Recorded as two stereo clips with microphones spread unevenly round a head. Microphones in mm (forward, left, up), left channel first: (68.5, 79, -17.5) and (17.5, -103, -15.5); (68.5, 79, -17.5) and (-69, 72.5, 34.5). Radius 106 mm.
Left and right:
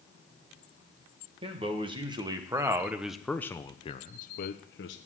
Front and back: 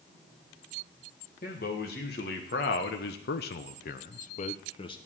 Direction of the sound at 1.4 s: 45° right.